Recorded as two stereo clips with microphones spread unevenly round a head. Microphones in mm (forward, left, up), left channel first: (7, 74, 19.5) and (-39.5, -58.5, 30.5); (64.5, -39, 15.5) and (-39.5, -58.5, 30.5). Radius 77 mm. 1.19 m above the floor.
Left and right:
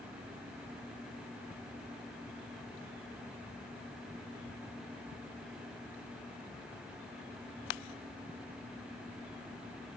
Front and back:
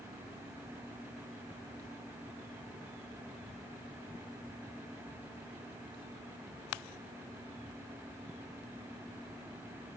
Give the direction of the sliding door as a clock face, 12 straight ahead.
No sliding door in this recording.